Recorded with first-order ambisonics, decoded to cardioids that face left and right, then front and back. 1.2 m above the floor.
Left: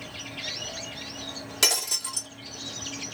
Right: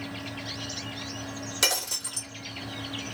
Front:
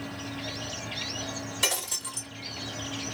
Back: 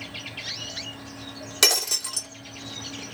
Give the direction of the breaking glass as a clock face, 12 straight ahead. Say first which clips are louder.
Left 2 dB, back 8 dB; 6 o'clock.